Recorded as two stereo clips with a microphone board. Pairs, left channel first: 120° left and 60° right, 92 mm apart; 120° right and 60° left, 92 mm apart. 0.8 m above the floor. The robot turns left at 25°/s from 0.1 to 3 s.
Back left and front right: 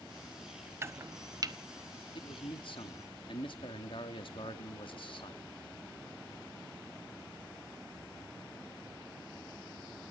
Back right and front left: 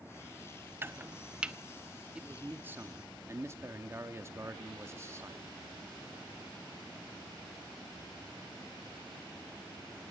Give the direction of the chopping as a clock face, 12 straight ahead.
12 o'clock.